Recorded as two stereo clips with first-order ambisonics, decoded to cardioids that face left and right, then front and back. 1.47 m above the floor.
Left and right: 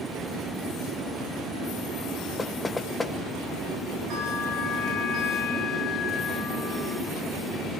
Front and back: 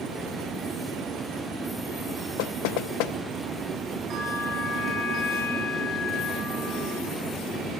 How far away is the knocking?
About 1.0 m.